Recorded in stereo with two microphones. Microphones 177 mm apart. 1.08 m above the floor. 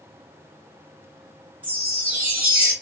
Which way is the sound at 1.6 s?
10° right (ahead or behind).